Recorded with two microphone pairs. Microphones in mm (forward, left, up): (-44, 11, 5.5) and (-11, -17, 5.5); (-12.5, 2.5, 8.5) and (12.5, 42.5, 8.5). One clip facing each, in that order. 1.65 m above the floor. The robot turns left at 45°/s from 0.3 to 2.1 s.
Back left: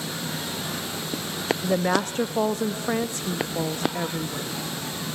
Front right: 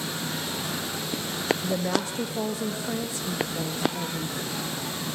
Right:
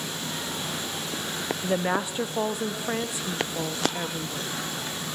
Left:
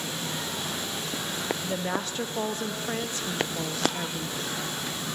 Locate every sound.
1.6 s a woman speaking: straight behind, 0.7 m; by 4.5 s 160° left, 0.7 m